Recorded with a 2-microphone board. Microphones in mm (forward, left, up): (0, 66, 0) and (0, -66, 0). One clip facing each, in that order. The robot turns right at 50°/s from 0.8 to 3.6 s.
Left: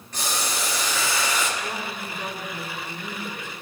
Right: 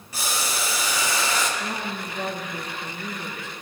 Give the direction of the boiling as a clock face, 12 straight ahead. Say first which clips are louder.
Even; 6 o'clock.